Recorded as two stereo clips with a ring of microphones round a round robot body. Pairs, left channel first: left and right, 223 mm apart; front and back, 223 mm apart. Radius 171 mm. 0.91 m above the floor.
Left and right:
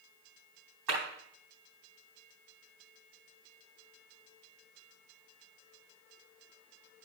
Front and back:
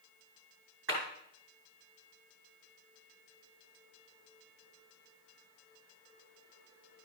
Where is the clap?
125° right, 5 m.